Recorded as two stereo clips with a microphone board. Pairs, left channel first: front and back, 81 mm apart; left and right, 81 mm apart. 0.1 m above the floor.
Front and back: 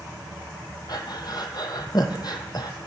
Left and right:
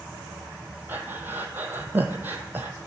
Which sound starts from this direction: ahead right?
Breathing, at 0.9 s.